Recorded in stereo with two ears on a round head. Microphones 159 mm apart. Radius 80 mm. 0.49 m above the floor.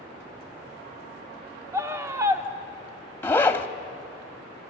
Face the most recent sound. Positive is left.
turn(degrees=15)  # may be behind; listen again after turning